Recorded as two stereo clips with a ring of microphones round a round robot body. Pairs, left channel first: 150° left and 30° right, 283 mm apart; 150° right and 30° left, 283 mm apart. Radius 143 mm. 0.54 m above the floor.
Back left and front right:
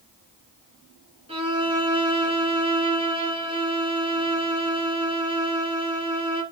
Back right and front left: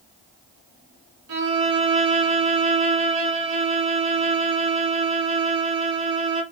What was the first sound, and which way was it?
A violin, 40° left.